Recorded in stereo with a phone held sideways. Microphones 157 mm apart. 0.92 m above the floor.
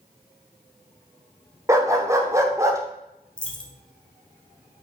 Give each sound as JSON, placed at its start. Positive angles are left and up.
{"t": 1.7, "sound": "a dog barking", "side_deg": -20, "distance_m": 0.5}
{"t": 3.4, "sound": "a dropped coin", "side_deg": 5, "distance_m": 0.6}